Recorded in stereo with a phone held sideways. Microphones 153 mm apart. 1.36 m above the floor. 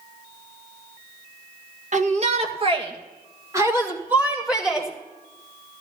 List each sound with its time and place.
1.9 s a shout: 55° right (ahead or behind), 1.9 m; by 4.9 s 5° right (ahead or behind), 2.5 m